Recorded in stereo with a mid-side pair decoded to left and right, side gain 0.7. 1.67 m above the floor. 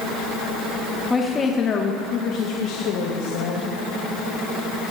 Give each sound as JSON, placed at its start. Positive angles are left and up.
{"t": 1.1, "sound": "a woman speaking", "azimuth_deg": 15, "distance_m": 1.8}